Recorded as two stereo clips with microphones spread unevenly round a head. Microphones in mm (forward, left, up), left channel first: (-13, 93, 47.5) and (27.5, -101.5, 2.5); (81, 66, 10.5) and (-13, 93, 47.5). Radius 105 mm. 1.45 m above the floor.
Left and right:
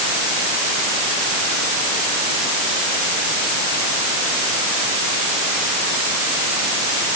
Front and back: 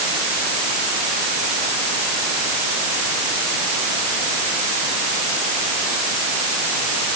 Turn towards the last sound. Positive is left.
No sound to turn to.